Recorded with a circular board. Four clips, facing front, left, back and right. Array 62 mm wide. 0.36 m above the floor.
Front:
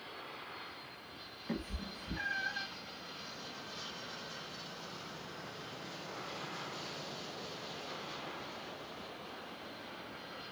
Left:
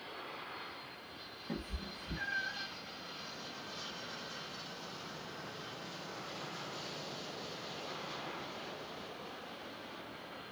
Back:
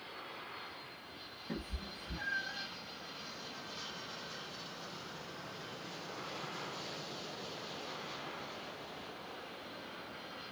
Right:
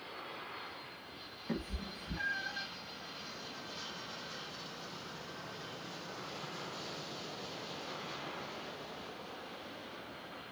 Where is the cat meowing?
45° right, 1.0 m; by 2.7 s straight ahead, 1.4 m.